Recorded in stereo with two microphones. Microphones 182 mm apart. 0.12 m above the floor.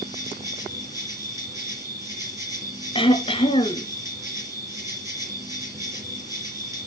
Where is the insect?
15° right (ahead or behind), 5 m.